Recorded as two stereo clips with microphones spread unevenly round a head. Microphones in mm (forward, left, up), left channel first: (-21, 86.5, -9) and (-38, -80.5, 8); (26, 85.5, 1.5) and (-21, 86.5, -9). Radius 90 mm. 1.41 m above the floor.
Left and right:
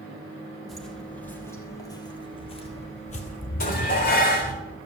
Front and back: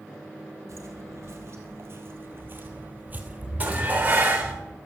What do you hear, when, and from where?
0.7 s footsteps: 175° left, 2.5 m; by 4.6 s 100° left, 2.5 m
3.6 s dishes clattering: 120° left, 3.5 m